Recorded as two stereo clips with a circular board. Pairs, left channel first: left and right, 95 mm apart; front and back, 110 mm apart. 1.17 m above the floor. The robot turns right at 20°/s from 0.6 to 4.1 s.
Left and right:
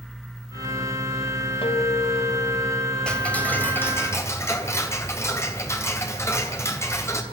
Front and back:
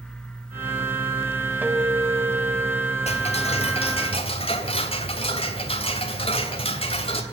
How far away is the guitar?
About 3.5 m.